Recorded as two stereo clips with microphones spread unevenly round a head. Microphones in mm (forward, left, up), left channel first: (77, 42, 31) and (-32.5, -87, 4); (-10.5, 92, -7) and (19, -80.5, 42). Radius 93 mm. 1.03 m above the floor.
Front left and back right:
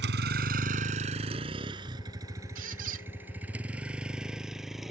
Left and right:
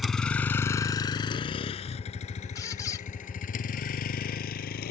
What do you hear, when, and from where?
0.0 s a vehicle: 165° right; by 4.9 s 140° left
2.5 s a squeak: straight behind